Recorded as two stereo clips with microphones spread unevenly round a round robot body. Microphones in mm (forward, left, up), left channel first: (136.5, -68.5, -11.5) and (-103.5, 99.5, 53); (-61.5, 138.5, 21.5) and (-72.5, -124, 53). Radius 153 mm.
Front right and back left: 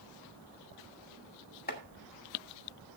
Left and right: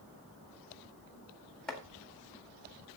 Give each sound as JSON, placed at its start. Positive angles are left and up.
{"t": 1.7, "sound": "chopping", "azimuth_deg": 5, "distance_m": 1.8}